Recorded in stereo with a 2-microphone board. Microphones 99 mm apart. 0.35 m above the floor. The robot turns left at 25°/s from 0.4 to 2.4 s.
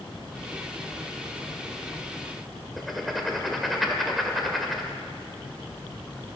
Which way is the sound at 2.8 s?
Centre (ahead or behind).